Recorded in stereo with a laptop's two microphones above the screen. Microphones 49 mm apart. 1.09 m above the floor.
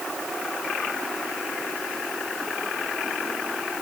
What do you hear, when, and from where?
Only background noise.